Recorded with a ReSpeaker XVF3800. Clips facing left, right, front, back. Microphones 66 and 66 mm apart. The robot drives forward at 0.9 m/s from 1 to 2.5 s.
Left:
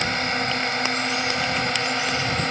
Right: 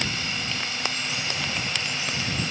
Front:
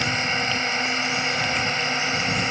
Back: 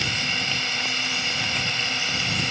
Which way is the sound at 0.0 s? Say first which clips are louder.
Left 6 dB, front 4 dB; 55° left.